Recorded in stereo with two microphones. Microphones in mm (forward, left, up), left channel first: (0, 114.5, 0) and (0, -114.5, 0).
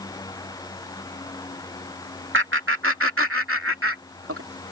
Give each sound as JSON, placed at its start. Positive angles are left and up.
{"t": 2.3, "sound": "laughter", "side_deg": -60}